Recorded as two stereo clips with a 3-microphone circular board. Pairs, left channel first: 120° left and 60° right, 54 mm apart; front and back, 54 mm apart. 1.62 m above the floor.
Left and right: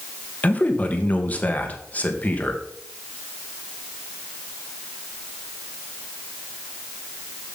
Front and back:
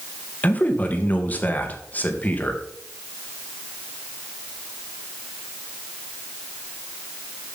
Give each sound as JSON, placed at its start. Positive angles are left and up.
{"t": 0.4, "sound": "a man speaking", "azimuth_deg": 60, "distance_m": 1.9}